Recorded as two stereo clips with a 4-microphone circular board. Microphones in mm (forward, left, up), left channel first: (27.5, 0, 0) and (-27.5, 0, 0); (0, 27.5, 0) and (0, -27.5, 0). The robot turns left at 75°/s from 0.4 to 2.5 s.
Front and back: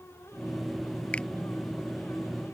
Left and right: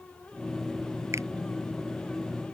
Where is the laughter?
I don't hear laughter.